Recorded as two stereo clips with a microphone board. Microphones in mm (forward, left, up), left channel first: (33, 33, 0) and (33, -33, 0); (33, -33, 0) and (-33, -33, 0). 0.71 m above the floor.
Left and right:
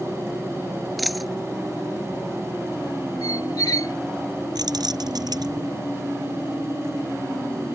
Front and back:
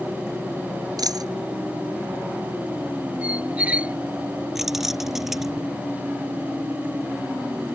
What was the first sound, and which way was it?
A dropped coin, straight behind.